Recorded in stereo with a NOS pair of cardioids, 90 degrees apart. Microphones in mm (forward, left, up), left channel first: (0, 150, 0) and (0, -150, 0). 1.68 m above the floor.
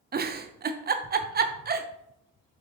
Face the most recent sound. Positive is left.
turn(degrees=-30)